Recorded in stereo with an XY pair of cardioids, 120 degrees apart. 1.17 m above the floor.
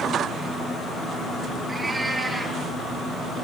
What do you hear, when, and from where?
1.7 s a cat meowing: 15° right, 8 m